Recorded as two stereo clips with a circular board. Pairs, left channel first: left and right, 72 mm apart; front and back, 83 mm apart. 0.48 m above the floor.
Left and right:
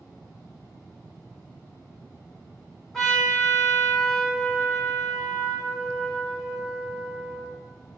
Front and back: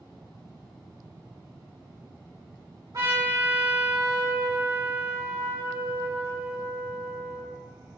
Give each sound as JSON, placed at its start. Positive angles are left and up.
{"t": 2.9, "sound": "a trumpet", "azimuth_deg": 170, "distance_m": 1.6}